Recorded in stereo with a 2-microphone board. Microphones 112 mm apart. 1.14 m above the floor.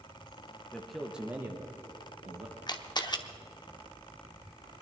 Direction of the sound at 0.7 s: 10° left (ahead or behind).